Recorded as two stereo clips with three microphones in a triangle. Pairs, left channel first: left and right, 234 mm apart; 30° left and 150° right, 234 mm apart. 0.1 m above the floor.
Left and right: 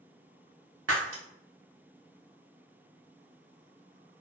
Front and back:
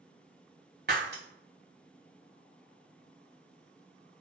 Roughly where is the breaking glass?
Right.